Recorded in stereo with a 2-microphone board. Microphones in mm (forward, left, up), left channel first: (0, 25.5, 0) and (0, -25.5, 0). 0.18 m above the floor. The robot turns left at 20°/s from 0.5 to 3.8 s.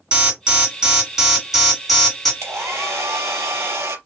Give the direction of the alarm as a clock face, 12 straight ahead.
5 o'clock.